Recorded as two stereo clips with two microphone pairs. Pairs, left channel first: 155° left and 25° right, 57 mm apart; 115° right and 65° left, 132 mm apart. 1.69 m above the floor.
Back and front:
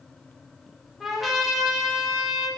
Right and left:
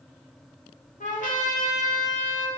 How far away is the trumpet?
About 5 m.